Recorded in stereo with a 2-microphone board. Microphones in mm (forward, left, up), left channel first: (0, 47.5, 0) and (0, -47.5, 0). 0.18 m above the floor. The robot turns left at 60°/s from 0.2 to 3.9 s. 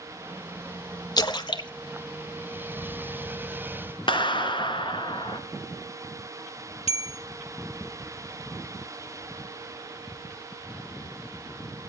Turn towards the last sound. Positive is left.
turn(degrees=75)  # may be behind; listen again after turning